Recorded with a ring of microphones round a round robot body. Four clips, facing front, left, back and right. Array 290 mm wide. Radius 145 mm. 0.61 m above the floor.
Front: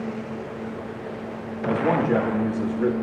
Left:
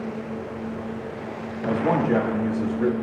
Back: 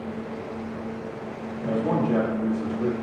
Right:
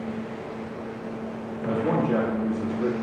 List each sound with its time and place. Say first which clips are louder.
1.6 s a man speaking: left 2 dB, front 3 dB; 60° left, 0.9 m